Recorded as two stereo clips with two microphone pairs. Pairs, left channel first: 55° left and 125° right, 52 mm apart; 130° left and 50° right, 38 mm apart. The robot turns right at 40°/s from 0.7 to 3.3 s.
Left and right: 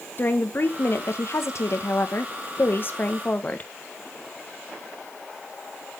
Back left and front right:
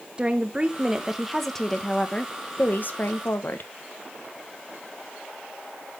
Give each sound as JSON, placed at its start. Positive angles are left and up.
{"t": 0.2, "sound": "a woman speaking", "azimuth_deg": 15, "distance_m": 1.2}